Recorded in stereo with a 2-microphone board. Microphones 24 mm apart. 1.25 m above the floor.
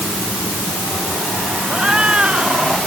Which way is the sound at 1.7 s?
40° right (ahead or behind).